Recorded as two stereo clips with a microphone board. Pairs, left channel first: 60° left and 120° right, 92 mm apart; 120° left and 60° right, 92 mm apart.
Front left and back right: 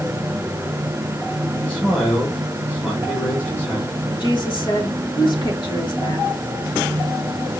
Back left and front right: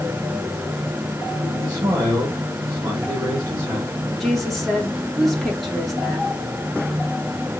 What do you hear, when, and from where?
1.6 s a man speaking: 10° right, 2 m
4.2 s a woman speaking: 30° left, 1.6 m